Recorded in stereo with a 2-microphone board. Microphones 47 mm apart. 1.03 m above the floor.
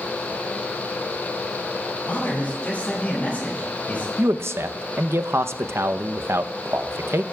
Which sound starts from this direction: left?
A man speaking, at 2.1 s.